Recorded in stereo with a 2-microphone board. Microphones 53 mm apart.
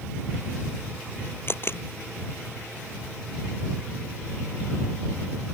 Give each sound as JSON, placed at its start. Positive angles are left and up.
{"t": 1.5, "sound": "a camera shutter", "side_deg": 45}